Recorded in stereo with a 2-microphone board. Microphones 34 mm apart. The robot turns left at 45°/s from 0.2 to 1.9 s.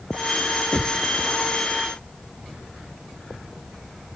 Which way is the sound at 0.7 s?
40° left (ahead or behind).